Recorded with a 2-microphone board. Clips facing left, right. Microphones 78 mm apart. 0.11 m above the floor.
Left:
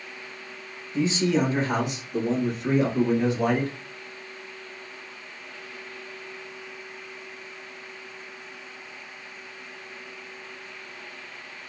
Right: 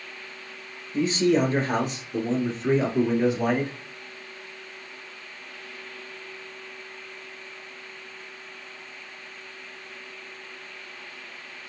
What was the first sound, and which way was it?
A man speaking, 50° right (ahead or behind).